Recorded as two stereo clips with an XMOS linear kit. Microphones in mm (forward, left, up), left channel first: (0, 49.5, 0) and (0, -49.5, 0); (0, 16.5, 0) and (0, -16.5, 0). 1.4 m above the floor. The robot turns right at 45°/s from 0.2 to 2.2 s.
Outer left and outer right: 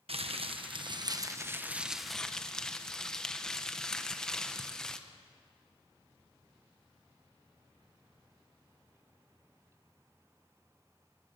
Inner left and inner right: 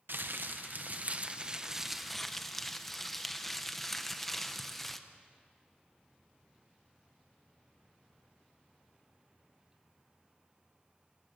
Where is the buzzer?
No buzzer in this recording.